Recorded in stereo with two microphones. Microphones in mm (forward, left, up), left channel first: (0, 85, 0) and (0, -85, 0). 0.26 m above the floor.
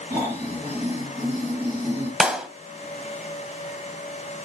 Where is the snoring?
10° right (ahead or behind), 6.5 m.